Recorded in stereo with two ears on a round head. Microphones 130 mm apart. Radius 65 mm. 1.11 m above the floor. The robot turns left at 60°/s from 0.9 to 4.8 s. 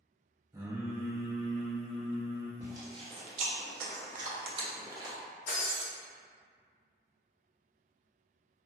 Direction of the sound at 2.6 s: 15° right (ahead or behind).